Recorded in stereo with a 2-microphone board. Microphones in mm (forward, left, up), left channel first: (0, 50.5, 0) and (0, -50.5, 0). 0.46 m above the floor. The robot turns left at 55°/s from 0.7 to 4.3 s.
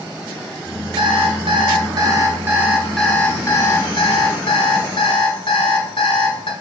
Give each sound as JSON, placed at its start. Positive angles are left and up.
{"t": 1.0, "sound": "an alarm clock", "azimuth_deg": -75, "distance_m": 1.1}